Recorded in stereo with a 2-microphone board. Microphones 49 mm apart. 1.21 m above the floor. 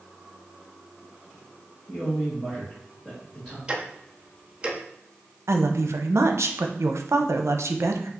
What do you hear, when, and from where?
1.9 s a man speaking: 5° left (ahead or behind), 2 m
3.7 s ticking: 20° right (ahead or behind), 0.6 m
5.5 s a woman speaking: 65° right (ahead or behind), 0.6 m